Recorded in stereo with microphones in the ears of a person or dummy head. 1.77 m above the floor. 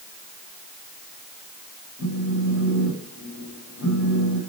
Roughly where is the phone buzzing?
Left.